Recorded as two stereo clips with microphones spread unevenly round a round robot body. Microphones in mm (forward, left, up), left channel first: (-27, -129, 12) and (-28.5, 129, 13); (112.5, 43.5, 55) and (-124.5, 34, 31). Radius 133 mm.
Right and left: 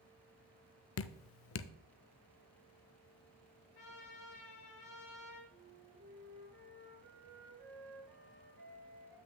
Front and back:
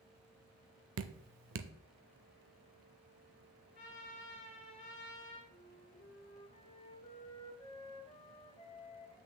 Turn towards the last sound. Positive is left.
turn(degrees=70)